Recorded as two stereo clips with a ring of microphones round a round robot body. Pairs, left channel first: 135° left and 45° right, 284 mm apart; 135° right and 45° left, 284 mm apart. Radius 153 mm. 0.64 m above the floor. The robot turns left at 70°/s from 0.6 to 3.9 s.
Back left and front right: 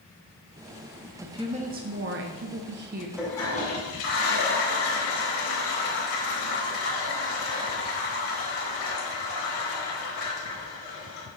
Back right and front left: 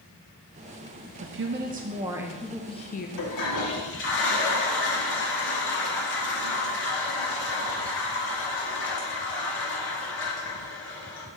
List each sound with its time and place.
1.2 s a woman speaking: 35° left, 0.6 m; by 3.1 s 95° right, 0.6 m
3.2 s a toilet flushing: 130° right, 2 m; by 11.3 s straight behind, 2 m